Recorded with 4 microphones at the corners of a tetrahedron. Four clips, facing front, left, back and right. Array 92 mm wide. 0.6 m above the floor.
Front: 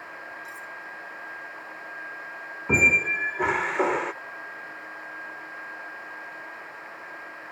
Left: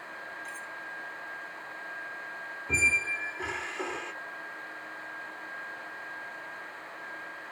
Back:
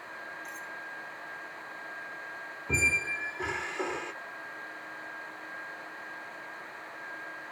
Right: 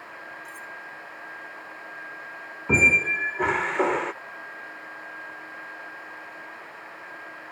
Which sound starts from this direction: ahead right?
A squeak, at 2.7 s.